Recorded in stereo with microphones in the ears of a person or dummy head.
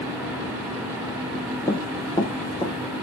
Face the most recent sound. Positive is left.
turn(degrees=20)  # may be behind; listen again after turning